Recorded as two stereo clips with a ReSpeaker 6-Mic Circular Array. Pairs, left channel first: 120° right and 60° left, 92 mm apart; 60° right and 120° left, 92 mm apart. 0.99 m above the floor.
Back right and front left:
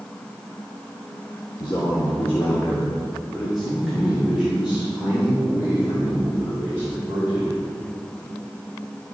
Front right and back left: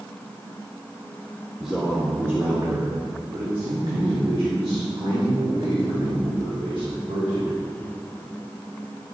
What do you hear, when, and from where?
1.6 s a man speaking: 155° right, 1.3 m; by 7.5 s 125° left, 4.5 m